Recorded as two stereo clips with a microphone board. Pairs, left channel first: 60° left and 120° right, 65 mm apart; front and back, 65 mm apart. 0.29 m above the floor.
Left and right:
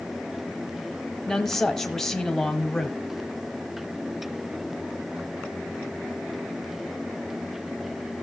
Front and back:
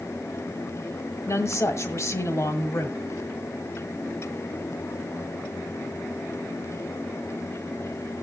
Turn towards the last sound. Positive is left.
turn(degrees=-25)